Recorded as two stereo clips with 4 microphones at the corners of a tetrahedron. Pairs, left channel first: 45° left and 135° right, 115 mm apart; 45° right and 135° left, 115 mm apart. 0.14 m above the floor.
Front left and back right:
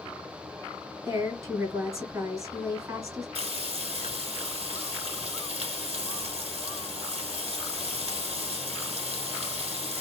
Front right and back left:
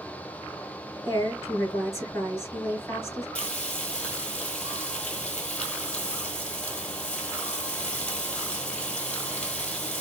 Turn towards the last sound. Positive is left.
turn(degrees=-125)